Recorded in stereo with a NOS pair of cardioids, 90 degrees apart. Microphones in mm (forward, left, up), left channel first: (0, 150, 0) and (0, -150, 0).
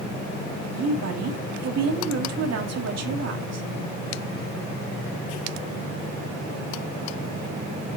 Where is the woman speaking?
55° right, 2.5 m.